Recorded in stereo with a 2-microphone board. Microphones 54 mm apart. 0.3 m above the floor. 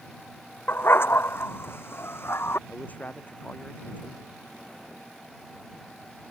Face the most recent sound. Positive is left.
turn(degrees=30)  # may be behind; listen again after turning